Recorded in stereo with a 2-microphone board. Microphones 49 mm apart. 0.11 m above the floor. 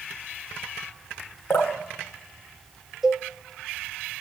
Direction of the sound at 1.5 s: 50° left (ahead or behind).